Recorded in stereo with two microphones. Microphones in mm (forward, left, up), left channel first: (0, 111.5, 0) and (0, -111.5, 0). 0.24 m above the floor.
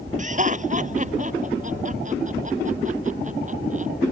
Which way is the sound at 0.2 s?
35° right (ahead or behind).